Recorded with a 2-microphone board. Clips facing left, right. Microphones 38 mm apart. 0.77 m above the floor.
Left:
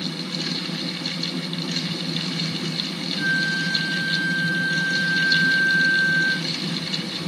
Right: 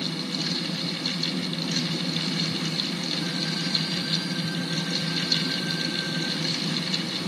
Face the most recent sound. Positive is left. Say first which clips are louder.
# left 7 dB
turn(degrees=65)  # may be behind; listen again after turning